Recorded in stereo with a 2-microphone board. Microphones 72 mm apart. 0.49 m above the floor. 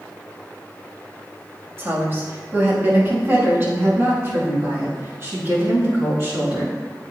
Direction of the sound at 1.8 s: 30° right (ahead or behind).